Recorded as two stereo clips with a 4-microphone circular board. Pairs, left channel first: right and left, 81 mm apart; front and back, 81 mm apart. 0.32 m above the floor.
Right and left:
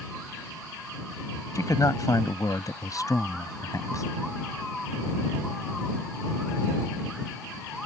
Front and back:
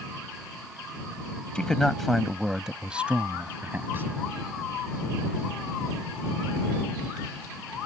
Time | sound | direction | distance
1.6 | a man speaking | 75° right | ?